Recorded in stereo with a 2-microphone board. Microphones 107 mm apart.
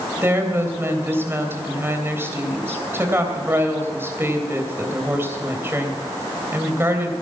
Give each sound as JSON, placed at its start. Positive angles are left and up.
{"t": 0.2, "sound": "a woman speaking", "side_deg": -20, "distance_m": 3.0}